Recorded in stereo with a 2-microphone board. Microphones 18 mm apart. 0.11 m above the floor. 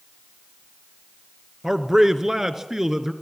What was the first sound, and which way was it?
A man speaking, 25° right (ahead or behind).